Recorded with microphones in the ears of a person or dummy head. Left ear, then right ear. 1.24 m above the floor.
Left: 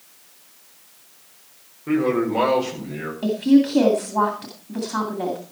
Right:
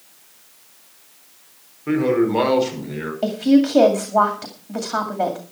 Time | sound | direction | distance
1.9 | a man speaking | 35° right (ahead or behind) | 4.5 m
3.2 | a woman speaking | 40° right (ahead or behind) | 2 m